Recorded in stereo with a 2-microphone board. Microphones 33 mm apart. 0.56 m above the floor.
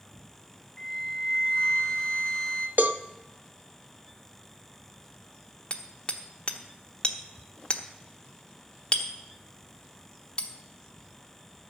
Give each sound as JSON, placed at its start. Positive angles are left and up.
{"t": 0.8, "sound": "a flute", "side_deg": 25, "distance_m": 1.5}
{"t": 2.8, "sound": "a cowbell", "side_deg": -70, "distance_m": 0.7}
{"t": 5.7, "sound": "hammering", "side_deg": 35, "distance_m": 1.1}